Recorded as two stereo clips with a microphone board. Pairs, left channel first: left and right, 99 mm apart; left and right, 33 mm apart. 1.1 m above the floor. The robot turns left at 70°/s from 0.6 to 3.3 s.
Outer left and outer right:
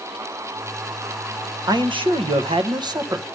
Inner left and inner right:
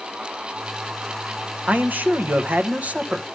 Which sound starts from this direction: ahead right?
A man speaking, at 1.7 s.